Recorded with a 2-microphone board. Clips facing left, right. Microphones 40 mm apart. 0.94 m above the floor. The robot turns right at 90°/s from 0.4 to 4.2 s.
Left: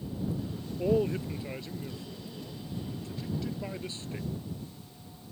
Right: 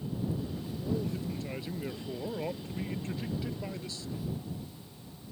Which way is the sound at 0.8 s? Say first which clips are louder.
Left 8 dB; 110° left.